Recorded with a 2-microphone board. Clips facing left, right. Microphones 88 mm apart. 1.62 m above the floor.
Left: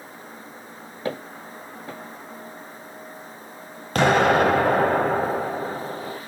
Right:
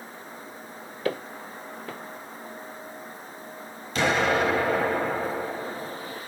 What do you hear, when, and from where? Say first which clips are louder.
1.1 s footsteps: right 1 dB; 20° left (ahead or behind), 2 m
4.0 s an explosion: left 6 dB; 50° left (ahead or behind), 0.8 m